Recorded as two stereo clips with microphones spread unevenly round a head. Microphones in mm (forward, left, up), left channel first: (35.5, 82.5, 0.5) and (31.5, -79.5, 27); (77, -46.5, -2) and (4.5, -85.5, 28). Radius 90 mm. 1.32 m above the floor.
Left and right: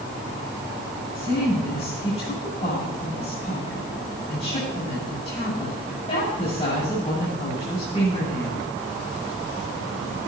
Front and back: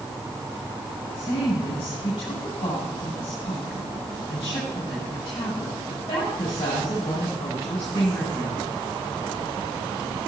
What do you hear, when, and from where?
1.1 s a woman speaking: 35° left, 8 m